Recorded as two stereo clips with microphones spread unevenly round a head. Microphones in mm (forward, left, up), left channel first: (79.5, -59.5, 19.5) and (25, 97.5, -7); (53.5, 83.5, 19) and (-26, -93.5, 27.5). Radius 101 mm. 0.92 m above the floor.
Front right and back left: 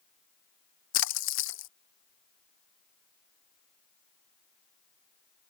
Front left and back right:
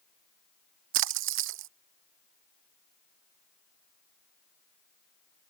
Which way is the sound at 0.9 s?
90° right.